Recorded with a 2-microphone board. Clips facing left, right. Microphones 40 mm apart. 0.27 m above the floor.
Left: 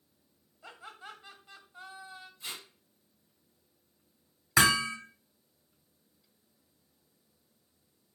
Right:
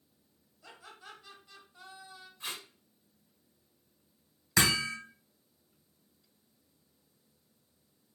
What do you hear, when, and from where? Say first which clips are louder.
0.6 s laughter: left 4 dB; 25° left (ahead or behind), 1.1 m
2.4 s tape being pulled: right 2 dB; 50° right (ahead or behind), 1.6 m
4.6 s hammering: left 4 dB; 15° left (ahead or behind), 1.2 m